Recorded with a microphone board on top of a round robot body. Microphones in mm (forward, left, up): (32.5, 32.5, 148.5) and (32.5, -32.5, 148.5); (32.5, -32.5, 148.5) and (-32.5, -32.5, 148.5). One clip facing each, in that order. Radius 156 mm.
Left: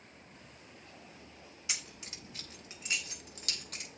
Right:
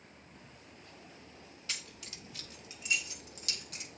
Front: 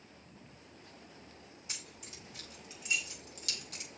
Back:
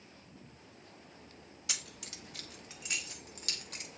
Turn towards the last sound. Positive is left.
turn(degrees=135)